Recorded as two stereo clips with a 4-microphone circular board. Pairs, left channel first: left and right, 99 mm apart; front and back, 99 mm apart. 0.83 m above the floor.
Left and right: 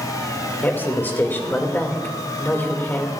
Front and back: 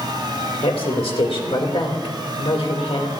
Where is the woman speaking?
20° left, 2 m.